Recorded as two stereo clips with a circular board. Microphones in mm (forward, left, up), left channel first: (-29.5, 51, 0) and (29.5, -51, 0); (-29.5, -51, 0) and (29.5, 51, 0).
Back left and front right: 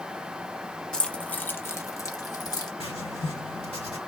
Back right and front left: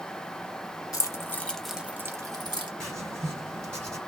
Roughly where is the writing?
Behind left.